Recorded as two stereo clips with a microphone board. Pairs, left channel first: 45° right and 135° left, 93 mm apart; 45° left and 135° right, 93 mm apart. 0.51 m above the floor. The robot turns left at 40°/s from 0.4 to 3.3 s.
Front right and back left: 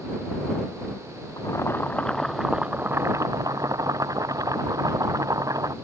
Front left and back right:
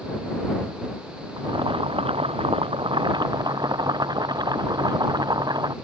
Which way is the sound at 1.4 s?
95° right.